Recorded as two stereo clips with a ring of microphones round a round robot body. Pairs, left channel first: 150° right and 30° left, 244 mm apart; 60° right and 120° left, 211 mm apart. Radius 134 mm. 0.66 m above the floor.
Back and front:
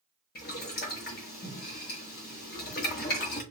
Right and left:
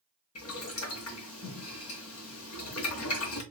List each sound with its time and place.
0.3 s boiling: 95° right, 1.0 m